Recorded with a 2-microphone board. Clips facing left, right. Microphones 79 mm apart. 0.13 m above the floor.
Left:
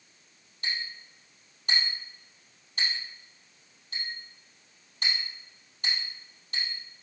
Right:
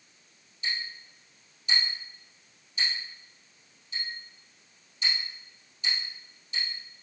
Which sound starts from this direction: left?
A clink, at 0.6 s.